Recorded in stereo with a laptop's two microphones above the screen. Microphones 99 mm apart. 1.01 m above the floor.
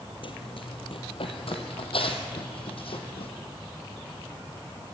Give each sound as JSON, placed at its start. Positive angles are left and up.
{"t": 0.2, "sound": "running footsteps", "side_deg": 60, "distance_m": 1.8}